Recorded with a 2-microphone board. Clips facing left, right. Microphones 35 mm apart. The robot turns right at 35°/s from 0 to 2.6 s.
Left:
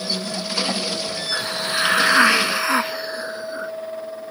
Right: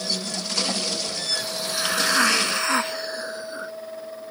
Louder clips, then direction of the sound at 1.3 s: Left 6 dB; 125° left.